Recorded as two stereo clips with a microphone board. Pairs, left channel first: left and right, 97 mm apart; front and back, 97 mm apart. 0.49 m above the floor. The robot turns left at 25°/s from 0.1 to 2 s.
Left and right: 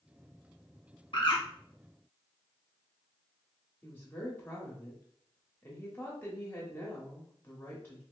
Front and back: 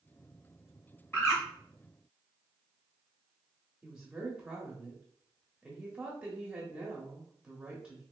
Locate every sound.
1.1 s a bird: 65° left, 1.5 m; by 1.4 s 60° left, 1.5 m
3.8 s a woman speaking: 110° left, 0.9 m